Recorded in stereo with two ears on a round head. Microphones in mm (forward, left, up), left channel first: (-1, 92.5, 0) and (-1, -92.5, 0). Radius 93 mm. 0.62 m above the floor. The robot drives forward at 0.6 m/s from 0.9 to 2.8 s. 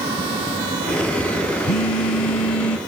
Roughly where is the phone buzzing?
Left.